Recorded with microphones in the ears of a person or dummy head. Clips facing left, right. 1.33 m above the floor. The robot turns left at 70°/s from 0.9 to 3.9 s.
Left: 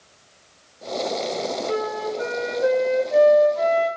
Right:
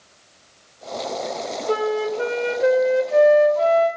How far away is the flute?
About 0.5 m.